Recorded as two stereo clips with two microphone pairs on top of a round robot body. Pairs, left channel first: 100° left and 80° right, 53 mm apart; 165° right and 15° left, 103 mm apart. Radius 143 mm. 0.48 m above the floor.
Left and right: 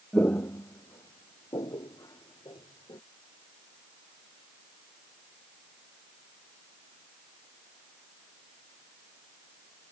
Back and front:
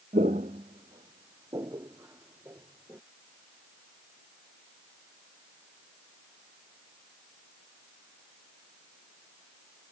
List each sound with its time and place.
0.1 s footsteps: 40° left; by 3.0 s 90° left